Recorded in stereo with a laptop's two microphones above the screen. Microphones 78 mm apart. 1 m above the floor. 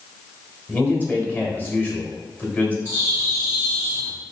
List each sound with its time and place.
0.7 s a man speaking: 25° left (ahead or behind), 1.4 m
2.9 s a bird: 30° right (ahead or behind), 1.3 m